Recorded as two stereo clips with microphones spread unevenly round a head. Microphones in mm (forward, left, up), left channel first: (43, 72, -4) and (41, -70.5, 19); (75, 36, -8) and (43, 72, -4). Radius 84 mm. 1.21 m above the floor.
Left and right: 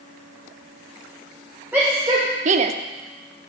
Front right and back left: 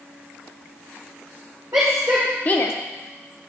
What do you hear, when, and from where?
1.7 s a shout: 175° right, 1.2 m; by 2.7 s 45° right, 0.7 m